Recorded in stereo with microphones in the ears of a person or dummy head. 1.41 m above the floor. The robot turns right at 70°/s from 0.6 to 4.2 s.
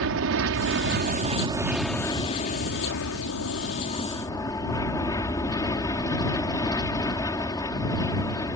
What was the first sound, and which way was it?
An aircraft, 85° right.